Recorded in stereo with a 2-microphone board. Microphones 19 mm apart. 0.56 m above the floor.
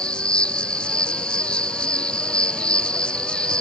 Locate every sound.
0.0 s an insect: 65° left (ahead or behind)